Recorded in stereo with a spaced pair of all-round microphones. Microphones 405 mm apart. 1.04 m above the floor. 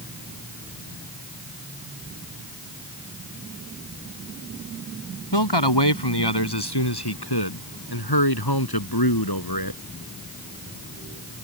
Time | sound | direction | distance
5.3 | a man speaking | 75° left (ahead or behind) | ?